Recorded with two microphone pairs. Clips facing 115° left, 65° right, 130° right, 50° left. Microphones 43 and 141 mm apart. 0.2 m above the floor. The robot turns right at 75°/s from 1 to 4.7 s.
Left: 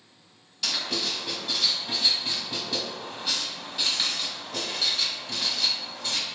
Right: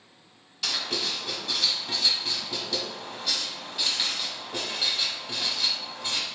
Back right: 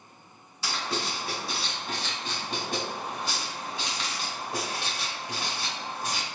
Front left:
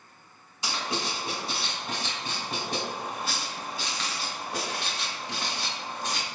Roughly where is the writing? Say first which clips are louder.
Even, even; ahead.